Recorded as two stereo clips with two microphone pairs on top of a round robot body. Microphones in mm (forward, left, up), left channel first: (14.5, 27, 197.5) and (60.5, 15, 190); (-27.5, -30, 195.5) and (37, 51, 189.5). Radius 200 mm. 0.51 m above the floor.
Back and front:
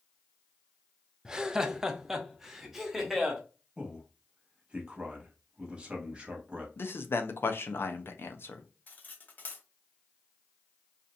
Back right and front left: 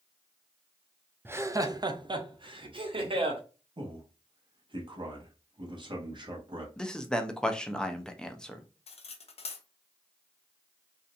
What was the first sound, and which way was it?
Laughter, 15° left.